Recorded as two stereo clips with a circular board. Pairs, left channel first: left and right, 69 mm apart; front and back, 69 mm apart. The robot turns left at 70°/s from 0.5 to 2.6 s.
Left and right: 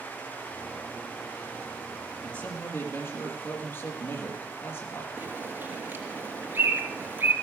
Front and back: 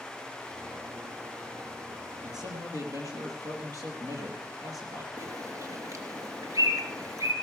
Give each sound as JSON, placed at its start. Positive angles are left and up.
{"t": 2.2, "sound": "a man speaking", "azimuth_deg": 170, "distance_m": 5.0}
{"t": 5.2, "sound": "a bird", "azimuth_deg": -145, "distance_m": 3.0}